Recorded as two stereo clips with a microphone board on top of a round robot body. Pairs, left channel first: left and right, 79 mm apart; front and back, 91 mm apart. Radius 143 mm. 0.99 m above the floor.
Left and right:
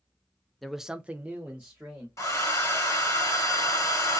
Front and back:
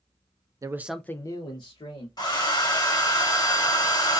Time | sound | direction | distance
0.6 | a man speaking | straight behind | 0.5 m
2.2 | a hair dryer | 40° left | 1.2 m